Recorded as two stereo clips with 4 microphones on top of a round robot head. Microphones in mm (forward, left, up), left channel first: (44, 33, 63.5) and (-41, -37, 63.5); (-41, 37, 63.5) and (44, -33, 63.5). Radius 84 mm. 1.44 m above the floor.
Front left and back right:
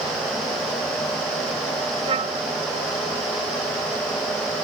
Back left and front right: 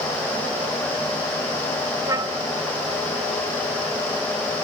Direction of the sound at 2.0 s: 100° right.